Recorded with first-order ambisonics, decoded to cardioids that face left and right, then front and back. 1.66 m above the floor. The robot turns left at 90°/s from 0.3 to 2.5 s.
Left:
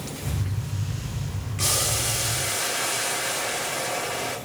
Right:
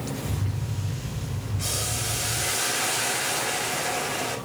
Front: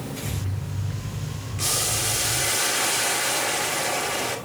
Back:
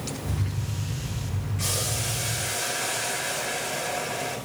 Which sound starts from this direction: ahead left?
Boiling, at 1.6 s.